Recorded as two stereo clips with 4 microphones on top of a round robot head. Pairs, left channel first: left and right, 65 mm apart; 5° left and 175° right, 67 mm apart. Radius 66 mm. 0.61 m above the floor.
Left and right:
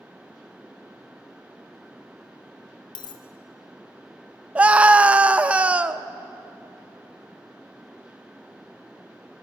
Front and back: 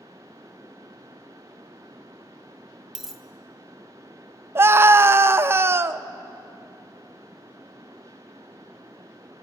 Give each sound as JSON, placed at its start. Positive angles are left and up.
{"t": 3.0, "sound": "a dropped coin", "azimuth_deg": 95, "distance_m": 1.7}
{"t": 4.5, "sound": "a scream", "azimuth_deg": -150, "distance_m": 0.7}